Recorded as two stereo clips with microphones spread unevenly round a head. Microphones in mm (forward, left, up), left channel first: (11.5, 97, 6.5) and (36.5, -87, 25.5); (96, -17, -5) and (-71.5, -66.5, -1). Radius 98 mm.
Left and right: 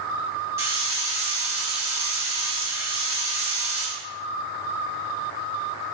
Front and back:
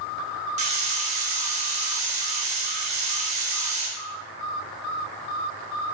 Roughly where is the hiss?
Behind right.